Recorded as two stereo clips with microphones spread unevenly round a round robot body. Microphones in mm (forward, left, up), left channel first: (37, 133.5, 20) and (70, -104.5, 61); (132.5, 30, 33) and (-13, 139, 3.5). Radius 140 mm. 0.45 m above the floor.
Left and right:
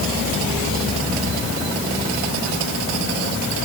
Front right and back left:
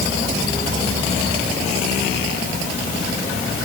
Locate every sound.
Only background noise.